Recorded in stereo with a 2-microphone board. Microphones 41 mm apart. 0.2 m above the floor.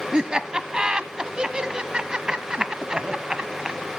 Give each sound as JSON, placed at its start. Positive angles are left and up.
{"t": 0.1, "sound": "laughter", "side_deg": -20, "distance_m": 1.2}